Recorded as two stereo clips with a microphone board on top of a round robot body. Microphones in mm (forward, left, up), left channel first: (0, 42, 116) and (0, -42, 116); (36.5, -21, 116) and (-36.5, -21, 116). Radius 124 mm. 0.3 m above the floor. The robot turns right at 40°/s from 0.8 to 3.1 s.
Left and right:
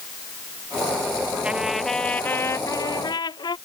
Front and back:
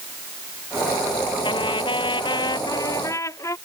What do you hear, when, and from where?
1.4 s a trumpet: 15° right; by 3.6 s 55° left